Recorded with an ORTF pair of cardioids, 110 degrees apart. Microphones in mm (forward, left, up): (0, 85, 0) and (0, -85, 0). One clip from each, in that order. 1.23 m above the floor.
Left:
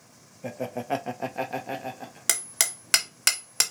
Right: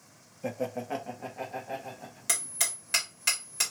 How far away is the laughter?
About 0.6 m.